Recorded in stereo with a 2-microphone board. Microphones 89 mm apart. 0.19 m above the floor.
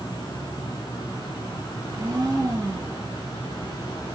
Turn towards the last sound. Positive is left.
turn(degrees=-35)  # may be behind; listen again after turning